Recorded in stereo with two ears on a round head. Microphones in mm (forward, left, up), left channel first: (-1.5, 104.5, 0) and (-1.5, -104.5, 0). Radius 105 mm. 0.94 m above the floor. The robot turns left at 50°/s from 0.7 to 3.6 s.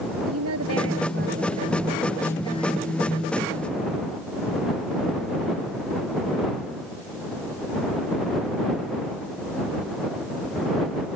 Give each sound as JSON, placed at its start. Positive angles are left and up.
{"t": 0.3, "sound": "a woman speaking", "azimuth_deg": -110}